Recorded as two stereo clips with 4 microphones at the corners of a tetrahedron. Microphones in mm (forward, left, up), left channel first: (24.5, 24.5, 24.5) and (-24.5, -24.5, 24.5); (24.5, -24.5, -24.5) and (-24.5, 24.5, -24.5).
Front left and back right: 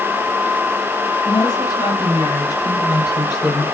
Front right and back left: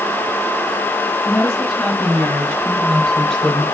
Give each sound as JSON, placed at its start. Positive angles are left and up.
{"t": 1.2, "sound": "a woman speaking", "azimuth_deg": 15, "distance_m": 7.0}